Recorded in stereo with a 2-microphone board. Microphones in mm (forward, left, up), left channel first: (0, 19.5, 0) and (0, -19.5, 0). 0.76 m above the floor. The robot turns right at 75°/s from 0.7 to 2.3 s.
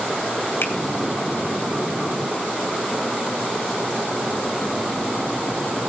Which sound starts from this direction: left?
A finger snap, at 0.6 s.